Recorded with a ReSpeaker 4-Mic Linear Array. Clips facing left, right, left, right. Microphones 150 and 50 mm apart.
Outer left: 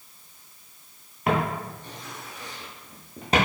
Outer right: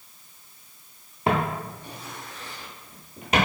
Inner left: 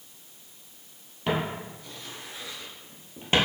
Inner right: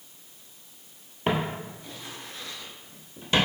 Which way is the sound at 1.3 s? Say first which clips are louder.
Even, inner right 1 dB; 30° right (ahead or behind).